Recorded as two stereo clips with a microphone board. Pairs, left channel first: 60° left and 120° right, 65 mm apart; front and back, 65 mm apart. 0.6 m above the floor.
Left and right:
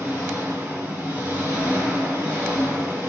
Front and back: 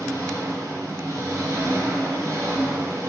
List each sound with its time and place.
0.0 s an engine running: 165° right, 1.3 m